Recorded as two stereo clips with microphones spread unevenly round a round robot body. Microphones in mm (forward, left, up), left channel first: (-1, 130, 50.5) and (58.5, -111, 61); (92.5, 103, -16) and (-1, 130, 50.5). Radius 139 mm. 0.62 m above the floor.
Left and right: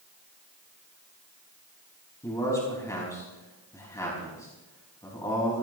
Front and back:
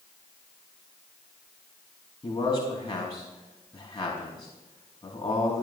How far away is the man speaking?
About 4.5 m.